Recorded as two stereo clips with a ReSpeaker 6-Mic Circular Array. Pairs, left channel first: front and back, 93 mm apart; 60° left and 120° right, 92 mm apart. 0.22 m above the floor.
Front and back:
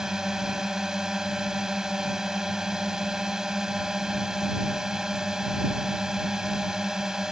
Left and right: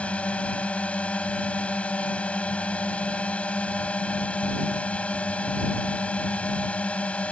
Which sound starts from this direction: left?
A drone, at 0.0 s.